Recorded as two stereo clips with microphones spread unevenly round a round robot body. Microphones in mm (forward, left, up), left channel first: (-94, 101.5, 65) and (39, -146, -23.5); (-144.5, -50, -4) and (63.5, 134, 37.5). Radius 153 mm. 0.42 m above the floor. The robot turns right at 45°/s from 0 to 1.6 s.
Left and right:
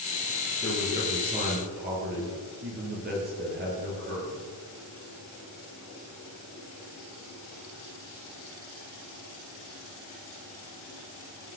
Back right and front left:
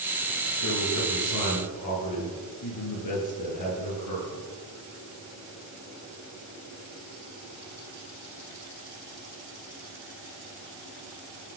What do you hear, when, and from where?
0.6 s a man speaking: 160° right, 8.5 m; by 4.4 s 115° right, 8.5 m